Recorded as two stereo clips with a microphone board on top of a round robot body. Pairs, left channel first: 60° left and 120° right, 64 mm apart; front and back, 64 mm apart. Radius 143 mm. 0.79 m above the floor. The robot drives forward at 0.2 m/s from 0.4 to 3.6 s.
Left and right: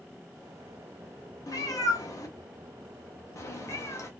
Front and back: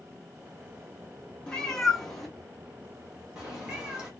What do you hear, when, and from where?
1.5 s a cat meowing: 80° left, 0.9 m; by 4.1 s 105° left, 0.9 m